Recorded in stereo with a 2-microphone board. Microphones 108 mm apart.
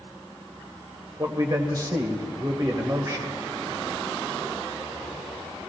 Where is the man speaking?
35° right (ahead or behind), 1.4 m.